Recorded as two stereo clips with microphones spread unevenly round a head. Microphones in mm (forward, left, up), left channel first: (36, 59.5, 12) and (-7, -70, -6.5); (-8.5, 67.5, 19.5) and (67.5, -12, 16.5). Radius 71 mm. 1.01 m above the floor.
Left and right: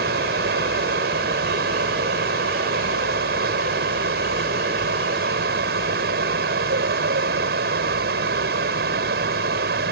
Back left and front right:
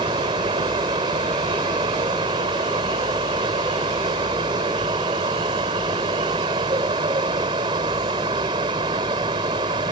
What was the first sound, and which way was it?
A fan, 105° right.